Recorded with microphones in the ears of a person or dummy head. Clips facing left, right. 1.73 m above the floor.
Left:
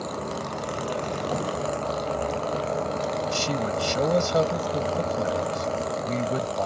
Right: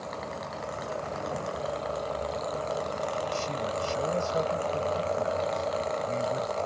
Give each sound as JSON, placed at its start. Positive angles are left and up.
{"t": 0.0, "sound": "a vehicle", "side_deg": 70}
{"t": 3.2, "sound": "a man speaking", "side_deg": 70}